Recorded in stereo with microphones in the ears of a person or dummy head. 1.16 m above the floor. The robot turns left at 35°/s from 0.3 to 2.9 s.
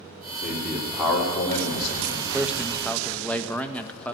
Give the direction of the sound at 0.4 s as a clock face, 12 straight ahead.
6 o'clock.